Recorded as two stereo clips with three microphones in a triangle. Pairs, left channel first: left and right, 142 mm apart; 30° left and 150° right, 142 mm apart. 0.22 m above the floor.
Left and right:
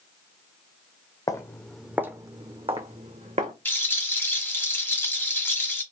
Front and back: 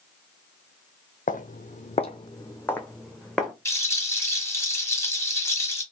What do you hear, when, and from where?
1.3 s footsteps: 30° left, 0.6 m; by 3.5 s 65° right, 1.2 m
3.6 s a rattle: 45° left, 1.1 m